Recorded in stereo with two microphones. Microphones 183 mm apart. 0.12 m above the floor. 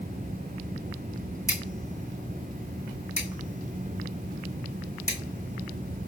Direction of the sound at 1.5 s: 15° left (ahead or behind).